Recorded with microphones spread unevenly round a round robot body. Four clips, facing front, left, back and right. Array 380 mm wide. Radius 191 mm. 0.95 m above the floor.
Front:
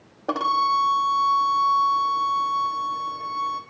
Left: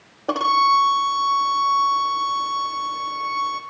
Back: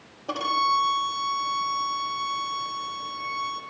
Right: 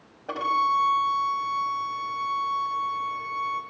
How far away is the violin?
About 1.1 m.